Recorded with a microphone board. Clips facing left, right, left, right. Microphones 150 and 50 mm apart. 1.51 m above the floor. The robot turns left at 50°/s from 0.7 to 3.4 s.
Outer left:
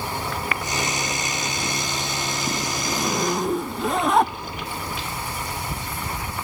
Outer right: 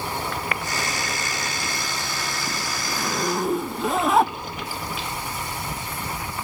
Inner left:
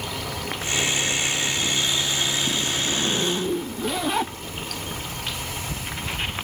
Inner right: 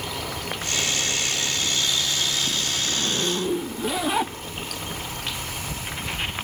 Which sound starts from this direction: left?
A zipper, at 2.9 s.